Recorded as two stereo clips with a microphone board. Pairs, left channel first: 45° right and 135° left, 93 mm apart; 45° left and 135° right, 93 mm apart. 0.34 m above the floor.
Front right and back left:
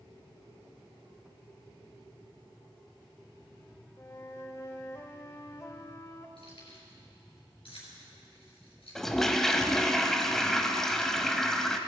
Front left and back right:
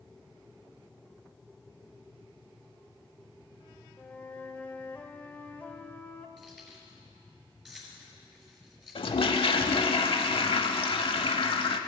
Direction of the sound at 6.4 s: 45° right.